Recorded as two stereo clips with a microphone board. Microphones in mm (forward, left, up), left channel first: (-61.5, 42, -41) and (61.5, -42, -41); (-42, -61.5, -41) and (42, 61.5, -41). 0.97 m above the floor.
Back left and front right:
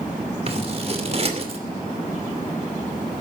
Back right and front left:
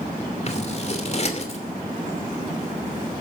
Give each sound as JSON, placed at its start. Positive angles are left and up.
{"t": 0.5, "sound": "scissors", "azimuth_deg": -80, "distance_m": 2.5}